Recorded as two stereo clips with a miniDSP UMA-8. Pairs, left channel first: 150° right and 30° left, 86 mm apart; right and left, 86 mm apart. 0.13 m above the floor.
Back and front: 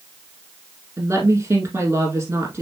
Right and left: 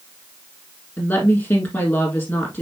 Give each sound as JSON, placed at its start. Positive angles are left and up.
{"t": 1.0, "sound": "a woman speaking", "azimuth_deg": -30, "distance_m": 4.5}